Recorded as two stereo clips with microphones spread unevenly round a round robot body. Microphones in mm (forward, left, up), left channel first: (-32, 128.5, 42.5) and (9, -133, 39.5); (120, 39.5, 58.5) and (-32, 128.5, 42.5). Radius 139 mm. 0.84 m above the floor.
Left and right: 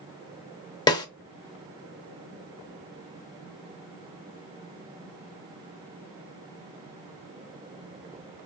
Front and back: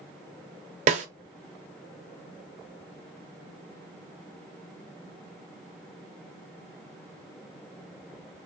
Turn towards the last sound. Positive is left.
turn(degrees=155)